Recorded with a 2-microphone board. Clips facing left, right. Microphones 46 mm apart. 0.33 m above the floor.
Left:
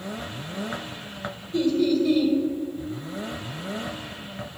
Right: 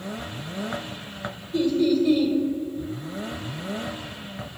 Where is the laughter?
Centre (ahead or behind), 1.1 m.